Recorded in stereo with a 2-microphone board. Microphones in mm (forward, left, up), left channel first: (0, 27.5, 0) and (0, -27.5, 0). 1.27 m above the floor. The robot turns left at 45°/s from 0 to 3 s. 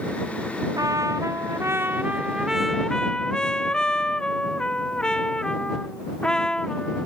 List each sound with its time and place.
0.8 s a trumpet: 90° right; by 7.1 s 165° left